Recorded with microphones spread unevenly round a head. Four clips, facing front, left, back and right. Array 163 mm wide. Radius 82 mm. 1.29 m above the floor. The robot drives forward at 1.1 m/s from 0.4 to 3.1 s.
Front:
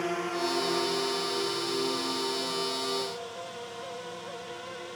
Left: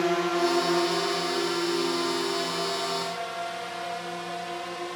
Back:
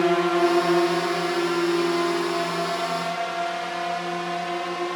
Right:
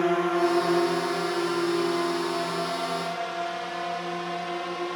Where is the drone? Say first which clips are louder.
Right 2 dB, back 11 dB; 170° right; by 5.0 s 160° right.